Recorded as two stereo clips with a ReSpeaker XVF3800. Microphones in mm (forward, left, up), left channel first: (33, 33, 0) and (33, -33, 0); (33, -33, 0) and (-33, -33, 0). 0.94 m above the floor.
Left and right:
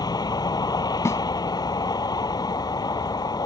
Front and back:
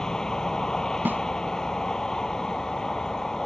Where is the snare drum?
125° left.